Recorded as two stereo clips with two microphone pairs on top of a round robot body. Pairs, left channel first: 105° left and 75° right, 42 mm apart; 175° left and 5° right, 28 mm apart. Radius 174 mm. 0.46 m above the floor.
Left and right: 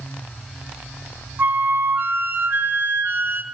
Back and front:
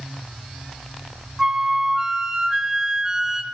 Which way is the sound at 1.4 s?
65° right.